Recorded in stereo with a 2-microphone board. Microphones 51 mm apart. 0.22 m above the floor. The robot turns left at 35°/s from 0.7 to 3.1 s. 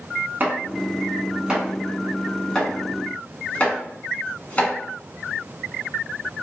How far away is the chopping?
About 1.5 m.